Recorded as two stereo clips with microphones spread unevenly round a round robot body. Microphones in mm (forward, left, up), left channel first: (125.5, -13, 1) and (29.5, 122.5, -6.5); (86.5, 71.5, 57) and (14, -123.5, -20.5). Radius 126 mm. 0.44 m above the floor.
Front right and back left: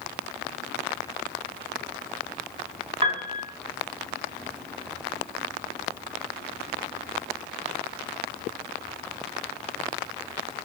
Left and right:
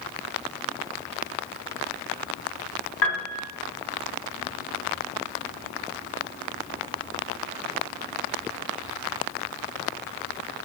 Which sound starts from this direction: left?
A piano, at 3.0 s.